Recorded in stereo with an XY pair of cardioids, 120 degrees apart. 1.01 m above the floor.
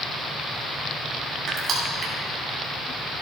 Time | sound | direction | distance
1.5 | crushing | 45° right | 4 m